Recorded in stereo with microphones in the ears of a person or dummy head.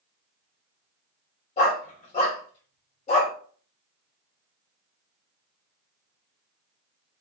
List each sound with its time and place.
1.6 s a dog barking: 35° left (ahead or behind), 1.6 m